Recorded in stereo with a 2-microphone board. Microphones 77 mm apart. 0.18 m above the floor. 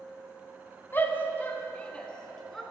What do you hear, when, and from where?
0.9 s a shout: 30° left (ahead or behind), 1.5 m; by 2.6 s 5° left (ahead or behind), 2.5 m